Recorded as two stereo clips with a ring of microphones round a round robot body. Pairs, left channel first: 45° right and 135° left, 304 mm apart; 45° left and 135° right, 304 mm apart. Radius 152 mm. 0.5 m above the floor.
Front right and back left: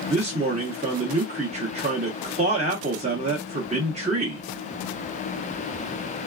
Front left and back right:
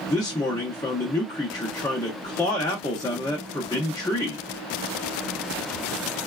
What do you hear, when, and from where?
0.1 s a man speaking: 105° left, 0.7 m